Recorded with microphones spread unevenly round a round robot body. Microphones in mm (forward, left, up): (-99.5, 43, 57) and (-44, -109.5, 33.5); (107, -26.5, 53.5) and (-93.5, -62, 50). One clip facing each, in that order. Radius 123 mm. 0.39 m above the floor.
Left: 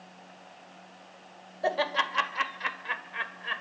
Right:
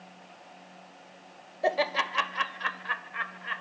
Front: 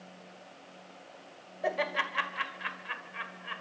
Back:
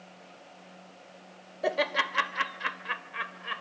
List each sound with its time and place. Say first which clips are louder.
1.6 s laughter: right 1 dB, back 3 dB; 135° right, 1.8 m; by 3.6 s 160° left, 1.9 m